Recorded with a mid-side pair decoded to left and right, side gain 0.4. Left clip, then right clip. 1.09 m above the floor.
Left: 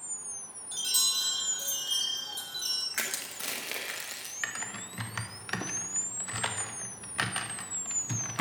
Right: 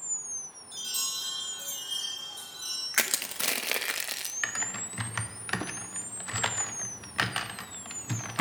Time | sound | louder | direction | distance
0.7 | a chime | left 5 dB | 45° left | 5.5 m
2.9 | crushing | right 5 dB | 60° right | 0.9 m
4.4 | typing on a keyboard | right 2 dB | 30° right | 0.8 m